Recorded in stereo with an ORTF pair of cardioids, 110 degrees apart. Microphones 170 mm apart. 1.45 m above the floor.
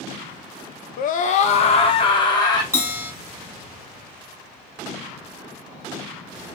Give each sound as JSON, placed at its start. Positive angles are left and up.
{"t": 1.0, "sound": "a scream", "azimuth_deg": 60, "distance_m": 0.5}
{"t": 2.7, "sound": "a bell", "azimuth_deg": -15, "distance_m": 1.6}